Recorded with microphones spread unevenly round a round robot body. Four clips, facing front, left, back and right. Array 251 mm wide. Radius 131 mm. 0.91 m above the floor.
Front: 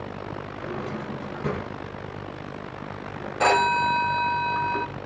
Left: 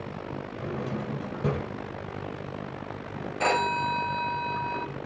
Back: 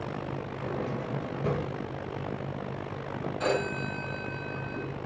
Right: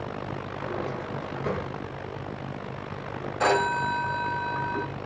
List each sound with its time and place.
0.6 s a drawer: 100° left, 3.5 m
3.4 s a phone ringing: 15° right, 2.5 m